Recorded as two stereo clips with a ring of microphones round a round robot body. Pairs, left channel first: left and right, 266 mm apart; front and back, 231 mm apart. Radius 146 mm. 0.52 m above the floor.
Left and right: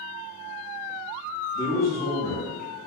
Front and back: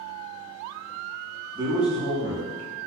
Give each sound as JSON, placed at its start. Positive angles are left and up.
{"t": 1.6, "sound": "a man speaking", "azimuth_deg": 150, "distance_m": 1.0}